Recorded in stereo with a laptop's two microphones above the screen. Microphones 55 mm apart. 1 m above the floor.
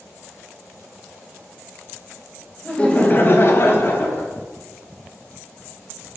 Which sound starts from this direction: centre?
Laughter, at 2.6 s.